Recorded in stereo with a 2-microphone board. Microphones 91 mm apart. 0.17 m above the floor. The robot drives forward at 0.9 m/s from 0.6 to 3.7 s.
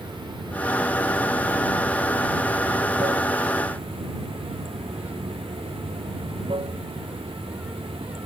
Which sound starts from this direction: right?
Running water, at 0.0 s.